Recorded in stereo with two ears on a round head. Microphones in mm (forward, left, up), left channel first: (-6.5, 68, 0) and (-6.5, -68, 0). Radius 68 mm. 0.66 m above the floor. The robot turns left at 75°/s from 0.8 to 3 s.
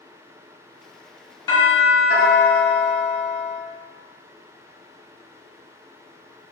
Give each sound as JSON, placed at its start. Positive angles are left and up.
{"t": 1.5, "sound": "a doorbell", "azimuth_deg": 145, "distance_m": 1.8}